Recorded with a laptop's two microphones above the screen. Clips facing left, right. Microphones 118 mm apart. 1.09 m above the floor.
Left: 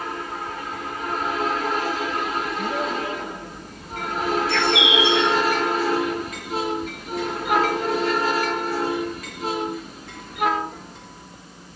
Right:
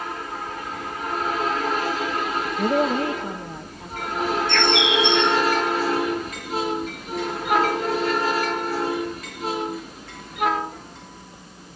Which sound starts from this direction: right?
A woman speaking, at 2.6 s.